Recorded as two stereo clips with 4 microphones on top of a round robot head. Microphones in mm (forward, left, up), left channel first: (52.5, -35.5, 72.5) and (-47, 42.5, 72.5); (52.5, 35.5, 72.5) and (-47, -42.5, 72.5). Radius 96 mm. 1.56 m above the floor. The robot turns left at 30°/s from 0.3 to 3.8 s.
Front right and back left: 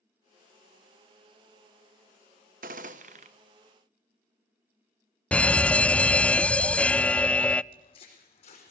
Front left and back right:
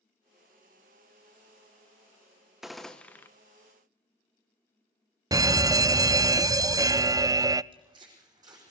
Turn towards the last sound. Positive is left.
turn(degrees=-80)